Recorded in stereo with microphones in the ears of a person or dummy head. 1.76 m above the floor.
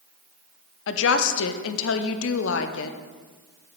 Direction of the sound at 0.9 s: 75° left (ahead or behind).